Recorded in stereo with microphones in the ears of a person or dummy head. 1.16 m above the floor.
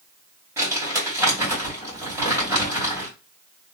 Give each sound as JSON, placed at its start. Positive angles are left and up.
{"t": 0.6, "sound": "crumpling", "side_deg": -15, "distance_m": 2.5}